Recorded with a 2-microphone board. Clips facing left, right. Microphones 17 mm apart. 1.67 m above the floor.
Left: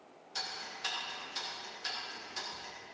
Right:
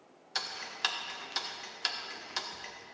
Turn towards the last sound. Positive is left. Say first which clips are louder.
# right 4 dB
turn(degrees=-60)  # may be behind; listen again after turning